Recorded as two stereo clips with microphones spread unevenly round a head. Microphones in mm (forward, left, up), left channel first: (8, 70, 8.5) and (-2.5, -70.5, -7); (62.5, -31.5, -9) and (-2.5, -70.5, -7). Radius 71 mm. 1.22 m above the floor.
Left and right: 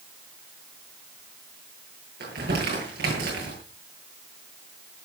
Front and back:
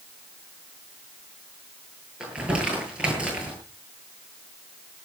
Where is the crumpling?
70° right, 9.5 m.